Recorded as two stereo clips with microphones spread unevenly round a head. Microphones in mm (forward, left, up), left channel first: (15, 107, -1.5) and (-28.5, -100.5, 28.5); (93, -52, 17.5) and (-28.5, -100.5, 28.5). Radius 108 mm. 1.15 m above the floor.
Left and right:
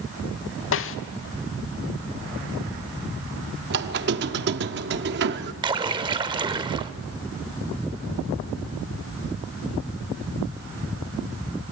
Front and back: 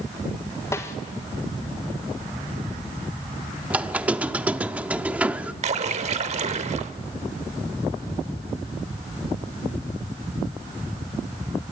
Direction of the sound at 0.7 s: 95° left.